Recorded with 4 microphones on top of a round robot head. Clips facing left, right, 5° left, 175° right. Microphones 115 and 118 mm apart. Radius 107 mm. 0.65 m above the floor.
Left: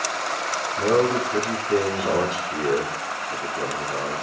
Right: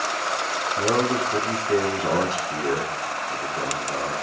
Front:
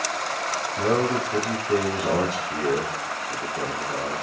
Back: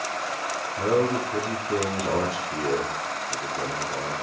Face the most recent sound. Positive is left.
turn(degrees=-40)